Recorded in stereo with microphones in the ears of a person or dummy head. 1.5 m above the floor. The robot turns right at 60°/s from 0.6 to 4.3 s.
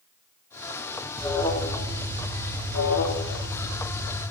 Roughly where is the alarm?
Ahead.